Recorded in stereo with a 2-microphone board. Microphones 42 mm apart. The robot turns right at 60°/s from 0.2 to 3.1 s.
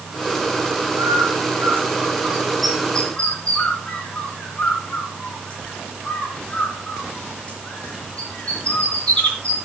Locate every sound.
1.0 s a bird: 75° right (ahead or behind), 5 m; by 9.6 s 30° left (ahead or behind), 5 m